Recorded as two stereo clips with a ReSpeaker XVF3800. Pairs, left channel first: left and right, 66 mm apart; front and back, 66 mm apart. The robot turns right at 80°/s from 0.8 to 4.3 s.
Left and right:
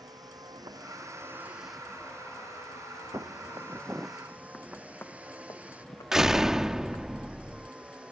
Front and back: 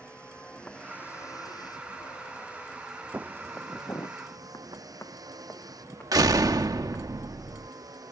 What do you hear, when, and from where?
0.0 s a vehicle: 75° right; by 8.1 s 160° right
3.1 s footsteps: 125° right; by 7.0 s 70° left
6.1 s a door slam: 170° right